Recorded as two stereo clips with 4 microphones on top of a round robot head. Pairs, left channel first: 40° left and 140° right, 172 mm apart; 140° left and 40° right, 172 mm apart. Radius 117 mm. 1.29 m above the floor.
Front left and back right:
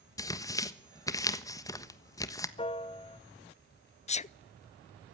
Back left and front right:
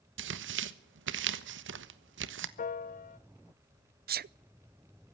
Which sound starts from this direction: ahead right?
Tearing paper, at 0.2 s.